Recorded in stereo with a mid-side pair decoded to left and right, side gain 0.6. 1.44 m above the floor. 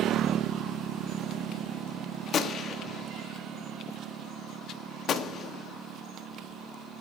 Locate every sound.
2.3 s a gunshot: 45° left, 0.9 m